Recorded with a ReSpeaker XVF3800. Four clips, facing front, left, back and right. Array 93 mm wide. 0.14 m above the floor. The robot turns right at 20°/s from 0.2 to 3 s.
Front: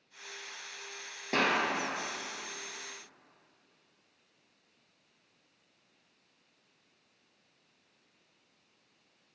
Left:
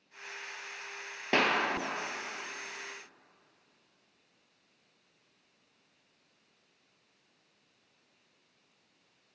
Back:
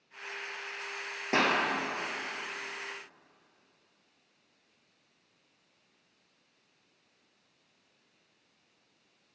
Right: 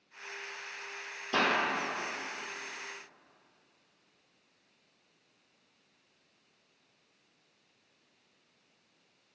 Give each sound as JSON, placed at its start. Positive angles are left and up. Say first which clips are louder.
{"t": 1.3, "sound": "a clap", "louder": "left 1 dB, back 2 dB", "azimuth_deg": 105, "distance_m": 2.0}